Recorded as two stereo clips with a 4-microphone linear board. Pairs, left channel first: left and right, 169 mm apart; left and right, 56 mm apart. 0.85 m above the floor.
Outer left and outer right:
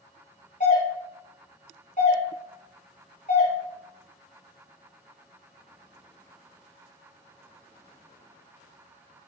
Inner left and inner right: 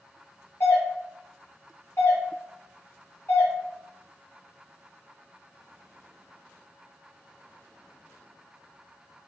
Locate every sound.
0.6 s a doorbell: 50° left (ahead or behind), 1.6 m